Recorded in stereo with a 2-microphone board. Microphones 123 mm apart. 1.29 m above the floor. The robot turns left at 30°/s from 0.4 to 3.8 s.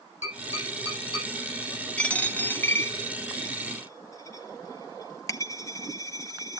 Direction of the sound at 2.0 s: 10° left (ahead or behind).